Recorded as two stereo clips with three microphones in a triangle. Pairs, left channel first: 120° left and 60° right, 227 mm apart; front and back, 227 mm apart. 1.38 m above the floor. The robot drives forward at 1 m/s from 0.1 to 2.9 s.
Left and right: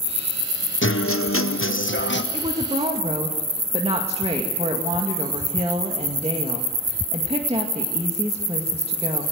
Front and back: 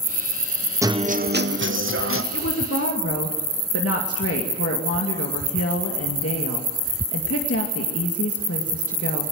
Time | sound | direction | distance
0.8 | a guitar | 105° left | 0.7 m
2.3 | a woman speaking | 5° left | 2.5 m